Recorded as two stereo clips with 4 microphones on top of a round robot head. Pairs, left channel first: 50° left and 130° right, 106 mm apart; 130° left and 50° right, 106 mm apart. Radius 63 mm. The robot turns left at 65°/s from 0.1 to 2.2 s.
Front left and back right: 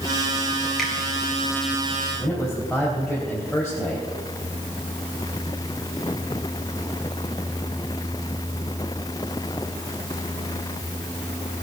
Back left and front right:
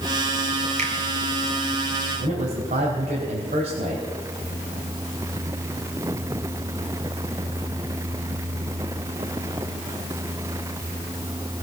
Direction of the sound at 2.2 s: 40° right.